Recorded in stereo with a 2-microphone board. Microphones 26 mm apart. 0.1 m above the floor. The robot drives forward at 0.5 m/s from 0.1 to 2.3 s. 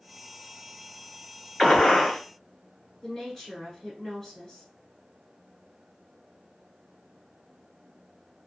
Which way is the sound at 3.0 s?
20° left (ahead or behind).